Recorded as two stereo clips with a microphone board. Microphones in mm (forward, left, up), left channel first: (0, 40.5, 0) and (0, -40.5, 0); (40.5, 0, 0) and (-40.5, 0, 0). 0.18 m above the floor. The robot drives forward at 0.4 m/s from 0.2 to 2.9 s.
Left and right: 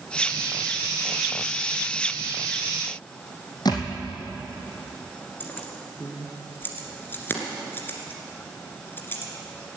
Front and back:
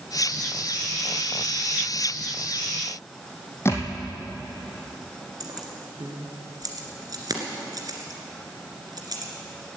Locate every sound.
3.6 s a thud: 60° left, 2.5 m
5.4 s keys jangling: 150° left, 2 m